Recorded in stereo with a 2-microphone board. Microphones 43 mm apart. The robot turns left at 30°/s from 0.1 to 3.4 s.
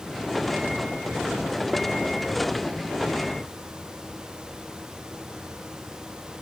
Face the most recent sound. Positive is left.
No sound to turn to.